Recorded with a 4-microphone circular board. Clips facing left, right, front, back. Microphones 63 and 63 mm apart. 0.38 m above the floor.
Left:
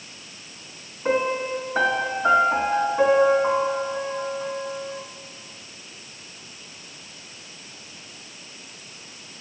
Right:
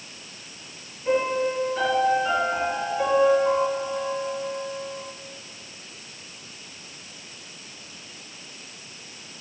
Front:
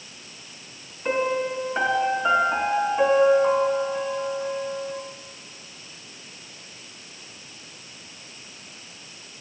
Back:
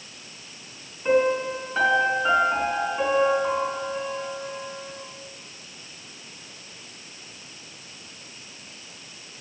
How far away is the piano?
About 3 m.